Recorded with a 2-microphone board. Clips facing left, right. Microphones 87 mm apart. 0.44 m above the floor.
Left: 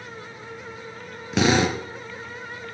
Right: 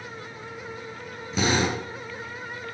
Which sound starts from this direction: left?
A drill, at 1.3 s.